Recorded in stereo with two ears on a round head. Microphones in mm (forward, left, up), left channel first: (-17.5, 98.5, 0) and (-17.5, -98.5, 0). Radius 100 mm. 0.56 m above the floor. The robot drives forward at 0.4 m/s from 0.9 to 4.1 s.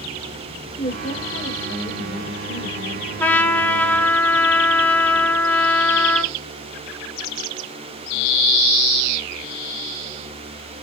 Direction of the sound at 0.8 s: 10° left (ahead or behind).